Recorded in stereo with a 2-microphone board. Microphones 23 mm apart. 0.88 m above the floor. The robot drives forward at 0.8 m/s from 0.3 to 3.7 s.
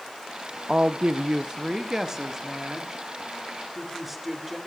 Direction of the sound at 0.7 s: 45° right (ahead or behind).